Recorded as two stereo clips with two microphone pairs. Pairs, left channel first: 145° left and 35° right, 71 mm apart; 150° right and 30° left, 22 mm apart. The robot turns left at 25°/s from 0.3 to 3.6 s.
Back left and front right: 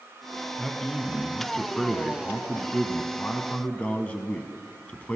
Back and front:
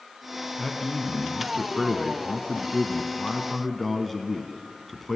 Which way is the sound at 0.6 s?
125° right.